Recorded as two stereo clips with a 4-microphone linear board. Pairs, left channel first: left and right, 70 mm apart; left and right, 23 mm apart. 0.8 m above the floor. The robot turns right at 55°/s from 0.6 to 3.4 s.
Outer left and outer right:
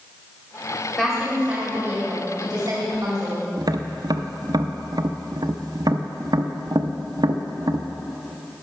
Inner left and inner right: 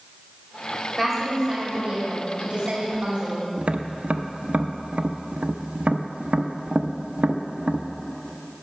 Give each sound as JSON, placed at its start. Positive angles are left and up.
{"t": 1.0, "sound": "a woman speaking", "azimuth_deg": 170, "distance_m": 2.5}
{"t": 3.6, "sound": "tapping", "side_deg": -70, "distance_m": 0.5}